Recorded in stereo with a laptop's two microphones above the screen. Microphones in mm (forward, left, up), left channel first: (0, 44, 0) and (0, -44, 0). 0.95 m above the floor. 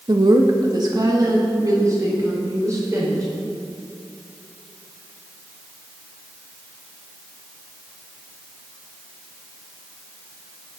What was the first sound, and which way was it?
A woman speaking, 50° right (ahead or behind).